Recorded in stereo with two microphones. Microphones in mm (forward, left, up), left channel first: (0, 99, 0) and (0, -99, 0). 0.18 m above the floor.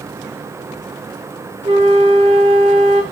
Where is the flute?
25° right (ahead or behind), 0.6 m.